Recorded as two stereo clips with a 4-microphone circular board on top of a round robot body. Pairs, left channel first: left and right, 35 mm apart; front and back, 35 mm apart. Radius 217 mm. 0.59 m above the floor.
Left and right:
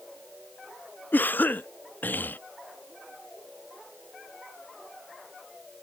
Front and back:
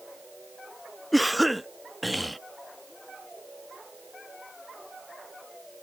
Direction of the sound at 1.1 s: 90° left.